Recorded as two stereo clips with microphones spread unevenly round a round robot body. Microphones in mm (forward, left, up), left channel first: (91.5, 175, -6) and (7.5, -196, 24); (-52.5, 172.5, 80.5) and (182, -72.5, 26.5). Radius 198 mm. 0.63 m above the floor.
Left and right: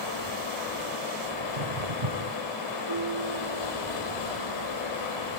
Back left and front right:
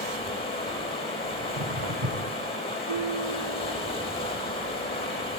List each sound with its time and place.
0.0 s running water: 60° left, 9 m
1.4 s footsteps: 90° right, 3 m
2.9 s dishes clattering: 55° right, 5 m